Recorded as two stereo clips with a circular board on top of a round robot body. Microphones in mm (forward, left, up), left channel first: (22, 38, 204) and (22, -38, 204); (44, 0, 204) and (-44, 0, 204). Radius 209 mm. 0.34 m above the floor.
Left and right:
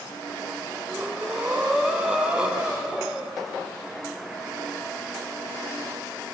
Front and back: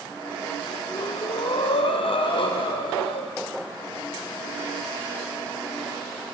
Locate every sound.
0.9 s breathing: 10° right, 1.2 m